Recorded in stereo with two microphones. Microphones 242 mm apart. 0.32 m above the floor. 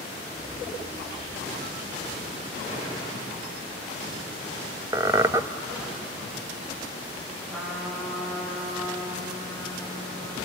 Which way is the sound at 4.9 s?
15° right (ahead or behind).